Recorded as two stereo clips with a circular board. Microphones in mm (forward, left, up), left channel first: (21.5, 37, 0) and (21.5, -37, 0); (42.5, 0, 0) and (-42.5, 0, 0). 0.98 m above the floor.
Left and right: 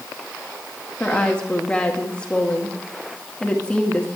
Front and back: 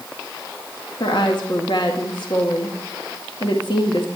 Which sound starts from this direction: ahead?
A woman speaking, at 1.0 s.